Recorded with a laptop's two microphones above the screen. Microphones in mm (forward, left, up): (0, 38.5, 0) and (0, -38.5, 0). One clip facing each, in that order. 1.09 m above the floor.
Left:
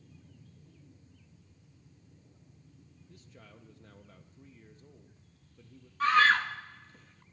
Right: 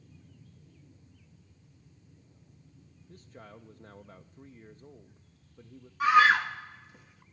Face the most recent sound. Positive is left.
turn(degrees=-10)  # may be behind; listen again after turning